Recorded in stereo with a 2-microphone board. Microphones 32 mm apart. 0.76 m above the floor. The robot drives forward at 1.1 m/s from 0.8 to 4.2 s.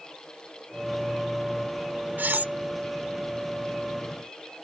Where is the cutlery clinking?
75° right (ahead or behind); by 2.5 s 60° right (ahead or behind).